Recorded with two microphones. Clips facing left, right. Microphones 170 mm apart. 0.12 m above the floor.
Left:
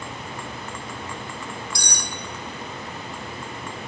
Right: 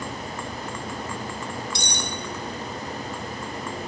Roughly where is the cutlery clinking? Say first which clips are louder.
Right 3 dB; right.